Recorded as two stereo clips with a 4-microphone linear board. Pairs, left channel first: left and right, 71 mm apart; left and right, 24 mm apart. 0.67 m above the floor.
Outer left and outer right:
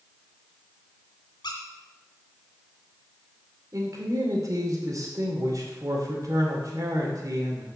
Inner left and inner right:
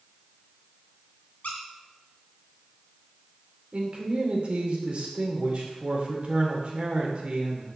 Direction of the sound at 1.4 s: 85° left.